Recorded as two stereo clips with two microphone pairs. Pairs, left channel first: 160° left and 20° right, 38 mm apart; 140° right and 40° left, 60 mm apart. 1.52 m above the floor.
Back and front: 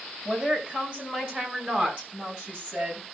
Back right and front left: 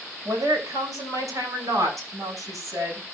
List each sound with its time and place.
0.2 s a woman speaking: 45° left, 6.5 m; by 3.0 s 25° left, 7 m